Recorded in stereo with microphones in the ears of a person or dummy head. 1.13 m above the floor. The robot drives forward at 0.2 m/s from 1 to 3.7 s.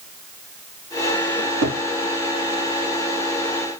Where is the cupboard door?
65° right (ahead or behind), 3.5 m.